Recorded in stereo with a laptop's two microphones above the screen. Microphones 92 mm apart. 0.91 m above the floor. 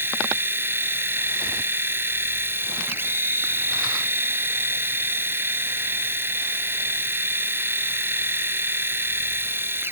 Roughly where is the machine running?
Right.